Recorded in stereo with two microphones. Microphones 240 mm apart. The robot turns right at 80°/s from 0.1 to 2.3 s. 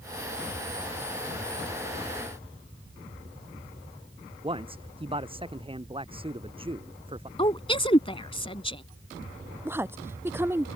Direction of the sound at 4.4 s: 20° right (ahead or behind).